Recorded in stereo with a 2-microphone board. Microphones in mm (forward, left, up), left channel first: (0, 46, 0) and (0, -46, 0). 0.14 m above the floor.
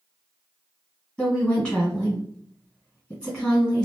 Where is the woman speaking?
10° left (ahead or behind), 1.7 m.